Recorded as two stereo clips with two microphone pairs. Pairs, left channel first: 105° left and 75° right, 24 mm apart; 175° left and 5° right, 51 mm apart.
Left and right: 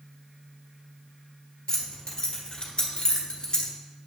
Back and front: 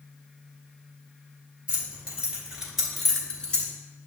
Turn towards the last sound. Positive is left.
turn(degrees=135)